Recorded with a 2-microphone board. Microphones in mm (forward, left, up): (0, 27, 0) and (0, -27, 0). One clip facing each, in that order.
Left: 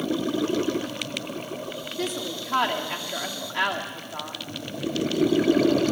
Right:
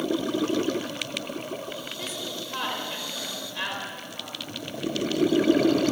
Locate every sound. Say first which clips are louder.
2.0 s a woman speaking: left 5 dB; 75° left (ahead or behind), 3 m